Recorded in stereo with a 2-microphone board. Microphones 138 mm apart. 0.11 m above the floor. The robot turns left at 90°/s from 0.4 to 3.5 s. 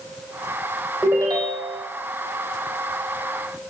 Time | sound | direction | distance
1.0 | a ringtone | 5° right | 3 m